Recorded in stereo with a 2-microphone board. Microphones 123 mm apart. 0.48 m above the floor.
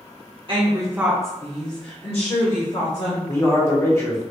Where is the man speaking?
20° left (ahead or behind), 0.9 m.